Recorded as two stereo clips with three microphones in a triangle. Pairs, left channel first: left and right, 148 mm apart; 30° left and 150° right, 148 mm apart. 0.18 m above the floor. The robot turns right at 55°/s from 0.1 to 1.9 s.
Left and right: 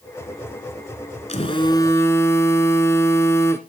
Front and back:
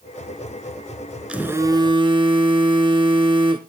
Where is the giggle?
No giggle in this recording.